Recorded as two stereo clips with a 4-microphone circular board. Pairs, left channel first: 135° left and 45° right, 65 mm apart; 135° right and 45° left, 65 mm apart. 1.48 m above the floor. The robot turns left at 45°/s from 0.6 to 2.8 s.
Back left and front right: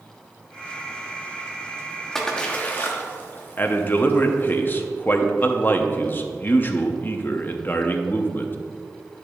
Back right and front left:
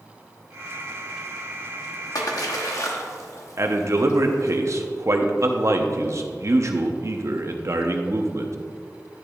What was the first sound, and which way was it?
A splash, 140° right.